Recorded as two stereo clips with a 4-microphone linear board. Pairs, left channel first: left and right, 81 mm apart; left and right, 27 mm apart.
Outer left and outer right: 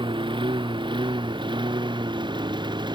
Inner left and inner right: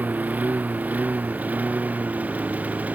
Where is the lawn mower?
90° right; by 3.0 s 70° right (ahead or behind).